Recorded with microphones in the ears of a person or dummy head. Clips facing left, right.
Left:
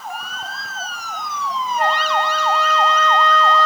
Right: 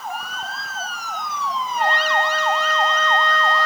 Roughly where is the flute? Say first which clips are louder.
Left 1 dB; left.